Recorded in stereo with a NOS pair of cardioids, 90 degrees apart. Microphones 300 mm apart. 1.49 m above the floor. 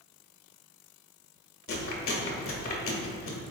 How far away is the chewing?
About 1.6 m.